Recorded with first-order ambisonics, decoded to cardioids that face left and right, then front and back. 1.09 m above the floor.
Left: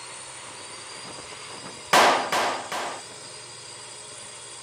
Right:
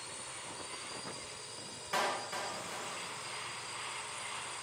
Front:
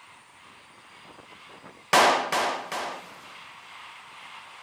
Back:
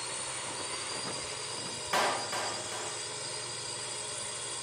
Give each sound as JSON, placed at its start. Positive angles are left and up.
{"t": 0.0, "sound": "a drone", "azimuth_deg": 160}
{"t": 1.9, "sound": "a clap", "azimuth_deg": 55}